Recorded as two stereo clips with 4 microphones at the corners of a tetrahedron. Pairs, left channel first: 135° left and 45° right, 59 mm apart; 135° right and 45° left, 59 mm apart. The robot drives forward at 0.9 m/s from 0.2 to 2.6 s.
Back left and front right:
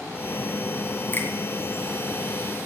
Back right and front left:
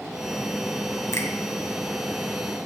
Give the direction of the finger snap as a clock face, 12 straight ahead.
6 o'clock.